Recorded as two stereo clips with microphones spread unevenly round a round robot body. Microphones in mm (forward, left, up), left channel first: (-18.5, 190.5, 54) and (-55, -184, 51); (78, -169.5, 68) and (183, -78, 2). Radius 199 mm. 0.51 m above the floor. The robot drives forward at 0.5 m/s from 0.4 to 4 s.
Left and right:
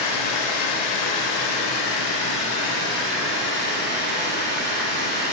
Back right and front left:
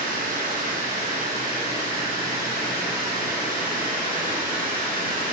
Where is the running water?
80° left, 0.9 m; by 5.3 s 150° left, 1.9 m.